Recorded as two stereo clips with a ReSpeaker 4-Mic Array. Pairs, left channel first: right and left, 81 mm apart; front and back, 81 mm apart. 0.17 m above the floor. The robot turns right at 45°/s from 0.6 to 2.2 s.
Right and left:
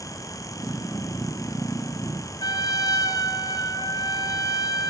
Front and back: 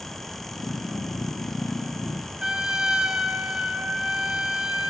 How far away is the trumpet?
About 0.6 m.